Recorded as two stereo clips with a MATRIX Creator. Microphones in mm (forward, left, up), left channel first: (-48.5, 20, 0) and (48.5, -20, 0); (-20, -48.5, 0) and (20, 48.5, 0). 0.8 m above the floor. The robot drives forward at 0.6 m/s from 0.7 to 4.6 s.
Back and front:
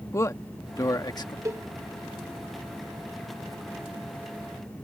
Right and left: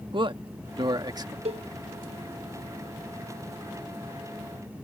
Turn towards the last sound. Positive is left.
turn(degrees=160)